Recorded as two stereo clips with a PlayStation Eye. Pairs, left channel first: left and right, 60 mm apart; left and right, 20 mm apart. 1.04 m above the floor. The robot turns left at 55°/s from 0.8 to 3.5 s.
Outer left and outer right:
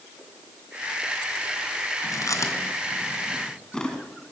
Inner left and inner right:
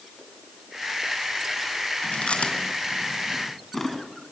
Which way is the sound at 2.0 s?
75° left (ahead or behind).